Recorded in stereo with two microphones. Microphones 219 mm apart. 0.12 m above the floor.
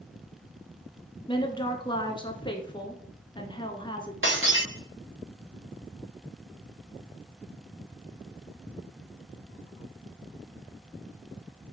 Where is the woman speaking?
20° left (ahead or behind), 1.3 m.